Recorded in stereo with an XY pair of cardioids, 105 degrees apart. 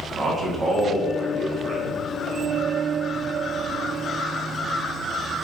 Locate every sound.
0.1 s a man speaking: 35° right, 2 m